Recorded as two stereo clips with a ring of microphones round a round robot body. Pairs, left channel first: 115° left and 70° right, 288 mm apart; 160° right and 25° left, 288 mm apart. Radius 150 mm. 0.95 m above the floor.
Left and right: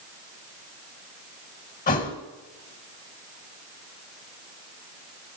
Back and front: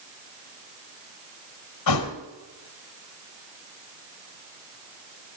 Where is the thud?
175° left, 1.7 m.